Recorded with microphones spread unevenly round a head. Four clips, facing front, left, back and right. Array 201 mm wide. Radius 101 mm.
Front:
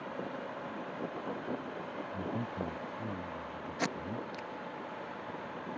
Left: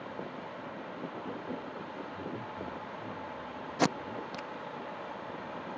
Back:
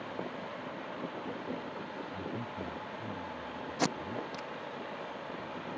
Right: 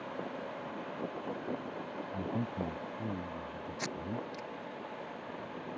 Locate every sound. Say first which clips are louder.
2.1 s a man speaking: right 7 dB, front 4 dB; 75° right
3.8 s tape being pulled: left 9 dB, back 3 dB; 100° left